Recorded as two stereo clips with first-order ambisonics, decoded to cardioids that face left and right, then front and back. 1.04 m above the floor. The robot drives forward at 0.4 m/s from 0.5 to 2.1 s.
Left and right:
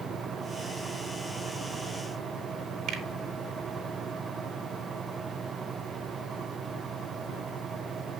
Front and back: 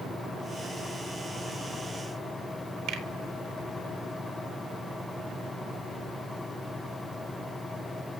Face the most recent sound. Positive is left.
turn(degrees=-140)